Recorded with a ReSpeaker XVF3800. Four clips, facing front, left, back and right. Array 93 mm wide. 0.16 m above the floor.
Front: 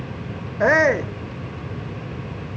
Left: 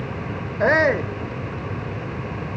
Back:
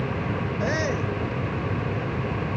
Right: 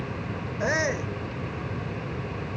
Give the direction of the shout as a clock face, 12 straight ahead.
11 o'clock.